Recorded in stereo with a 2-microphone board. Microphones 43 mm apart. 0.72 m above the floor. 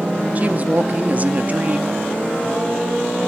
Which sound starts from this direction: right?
A woman speaking, at 0.3 s.